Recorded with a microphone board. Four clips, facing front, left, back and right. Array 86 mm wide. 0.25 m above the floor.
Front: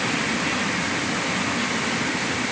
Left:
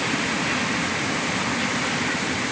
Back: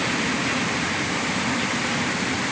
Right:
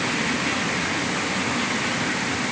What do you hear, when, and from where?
Only background noise.